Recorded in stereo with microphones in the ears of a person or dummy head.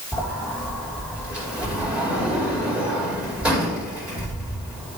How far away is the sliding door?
About 3 m.